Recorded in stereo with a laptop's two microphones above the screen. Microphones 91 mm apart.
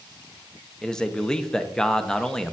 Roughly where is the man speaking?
Centre.